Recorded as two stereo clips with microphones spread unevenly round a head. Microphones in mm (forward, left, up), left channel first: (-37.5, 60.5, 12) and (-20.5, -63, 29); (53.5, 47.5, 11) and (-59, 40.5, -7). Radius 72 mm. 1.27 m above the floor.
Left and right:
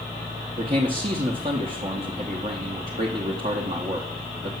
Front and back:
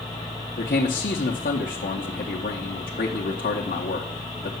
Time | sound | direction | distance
0.6 | a man speaking | 30° right | 0.7 m